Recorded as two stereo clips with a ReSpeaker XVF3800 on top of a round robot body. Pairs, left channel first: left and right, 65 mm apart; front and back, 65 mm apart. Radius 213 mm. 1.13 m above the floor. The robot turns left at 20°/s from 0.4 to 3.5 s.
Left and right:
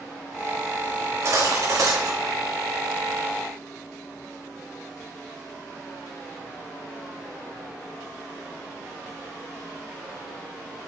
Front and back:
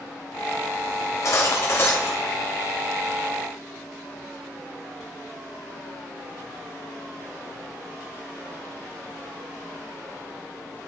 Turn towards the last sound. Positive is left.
turn(degrees=-90)